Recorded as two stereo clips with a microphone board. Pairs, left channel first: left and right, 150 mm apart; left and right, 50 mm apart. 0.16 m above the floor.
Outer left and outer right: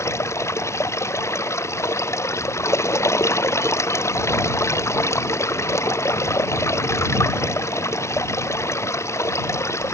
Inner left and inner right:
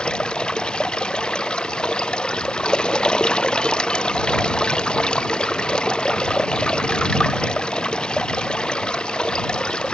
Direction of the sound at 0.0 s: 20° left (ahead or behind).